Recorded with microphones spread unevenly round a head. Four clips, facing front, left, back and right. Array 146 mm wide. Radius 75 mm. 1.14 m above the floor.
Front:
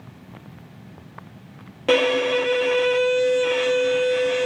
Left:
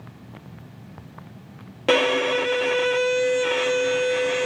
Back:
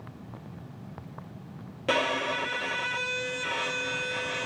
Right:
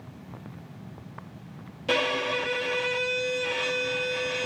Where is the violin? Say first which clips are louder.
Left 7 dB, front 9 dB; 70° left, 0.8 m.